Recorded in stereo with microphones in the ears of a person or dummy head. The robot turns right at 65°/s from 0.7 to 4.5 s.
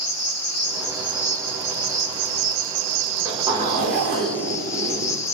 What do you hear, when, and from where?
0.0 s an insect: 135° left, 2.0 m; by 5.3 s 20° left, 2.0 m
3.1 s a zipper: 165° right, 1.8 m; by 5.2 s 75° right, 1.8 m